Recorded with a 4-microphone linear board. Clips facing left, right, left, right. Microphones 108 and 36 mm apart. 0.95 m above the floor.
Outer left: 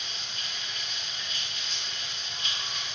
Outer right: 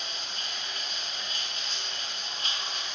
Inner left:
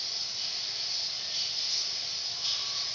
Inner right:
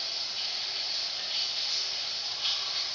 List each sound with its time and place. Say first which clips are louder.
0.0 s running water: outer right 2 dB, inner right 2 dB; 40° right (ahead or behind), 0.7 m